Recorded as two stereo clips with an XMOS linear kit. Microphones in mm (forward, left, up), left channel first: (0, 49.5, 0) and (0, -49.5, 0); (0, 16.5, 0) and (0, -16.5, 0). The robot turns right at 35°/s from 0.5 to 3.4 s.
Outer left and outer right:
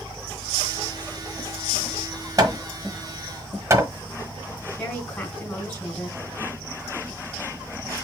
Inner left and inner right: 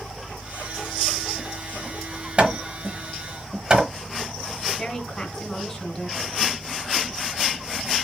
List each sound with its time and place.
2.4 s hammering: 35° right (ahead or behind), 1.2 m; by 3.9 s 25° right (ahead or behind), 1.2 m
4.8 s a woman speaking: 20° left (ahead or behind), 2.5 m